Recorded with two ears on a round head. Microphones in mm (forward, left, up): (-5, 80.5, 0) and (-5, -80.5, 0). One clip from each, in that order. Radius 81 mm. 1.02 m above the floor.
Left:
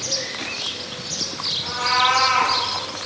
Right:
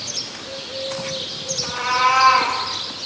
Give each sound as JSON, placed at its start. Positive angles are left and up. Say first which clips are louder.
{"t": 1.6, "sound": "a cat meowing", "louder": "right 1 dB", "side_deg": -20, "distance_m": 1.9}